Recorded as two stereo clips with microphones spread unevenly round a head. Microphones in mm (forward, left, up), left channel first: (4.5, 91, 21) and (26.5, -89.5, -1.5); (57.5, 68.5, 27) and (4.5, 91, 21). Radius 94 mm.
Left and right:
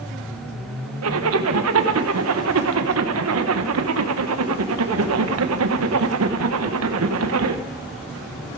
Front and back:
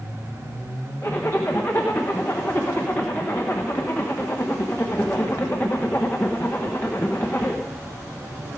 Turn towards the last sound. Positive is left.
turn(degrees=-100)